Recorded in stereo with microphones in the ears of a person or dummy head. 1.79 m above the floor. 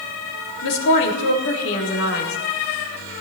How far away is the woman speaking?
About 3.5 m.